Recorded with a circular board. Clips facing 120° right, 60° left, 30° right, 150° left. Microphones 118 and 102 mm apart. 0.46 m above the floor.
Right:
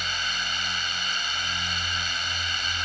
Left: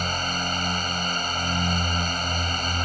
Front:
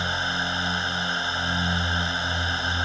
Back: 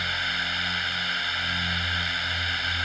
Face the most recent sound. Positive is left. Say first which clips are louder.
# left 6 dB, front 4 dB
turn(degrees=25)